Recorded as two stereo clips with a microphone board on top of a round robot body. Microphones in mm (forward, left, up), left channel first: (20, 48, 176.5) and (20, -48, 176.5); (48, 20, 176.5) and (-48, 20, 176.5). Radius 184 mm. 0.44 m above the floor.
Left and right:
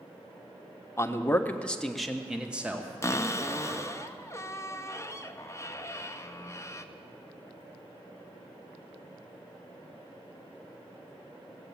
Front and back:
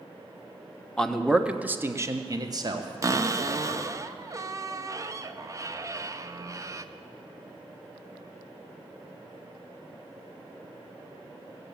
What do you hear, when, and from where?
1.0 s a man speaking: 75° left, 1.1 m; by 4.0 s 155° right, 2.0 m
3.0 s a cupboard door: 140° left, 0.8 m